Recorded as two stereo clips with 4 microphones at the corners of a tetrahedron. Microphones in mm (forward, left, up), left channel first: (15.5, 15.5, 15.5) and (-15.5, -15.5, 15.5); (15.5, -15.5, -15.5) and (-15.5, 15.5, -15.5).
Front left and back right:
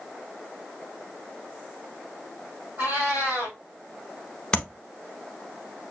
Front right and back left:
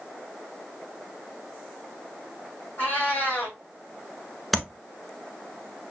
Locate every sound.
2.8 s a cat meowing: 95° right, 1.7 m
4.5 s tapping: 40° left, 0.8 m